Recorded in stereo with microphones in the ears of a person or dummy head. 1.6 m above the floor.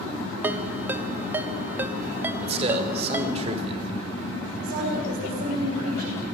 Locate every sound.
0.4 s a ringtone: 10° right (ahead or behind), 1.0 m
2.4 s a man speaking: 40° right (ahead or behind), 4.5 m
4.6 s a woman speaking: 55° right (ahead or behind), 8.5 m